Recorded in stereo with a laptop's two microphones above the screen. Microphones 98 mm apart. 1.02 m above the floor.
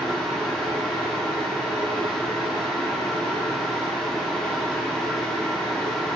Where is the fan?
5° left (ahead or behind), 0.9 m.